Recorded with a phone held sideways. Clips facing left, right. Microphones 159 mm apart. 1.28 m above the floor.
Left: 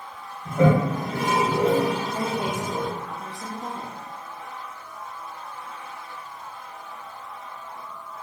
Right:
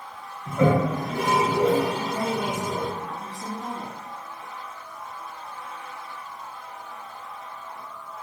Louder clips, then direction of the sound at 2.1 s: Even; 20° left (ahead or behind).